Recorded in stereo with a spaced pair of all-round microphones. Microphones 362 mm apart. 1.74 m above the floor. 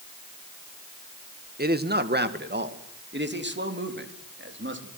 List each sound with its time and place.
1.6 s a man speaking: 30° right (ahead or behind), 1.6 m; by 4.9 s 35° right (ahead or behind), 4 m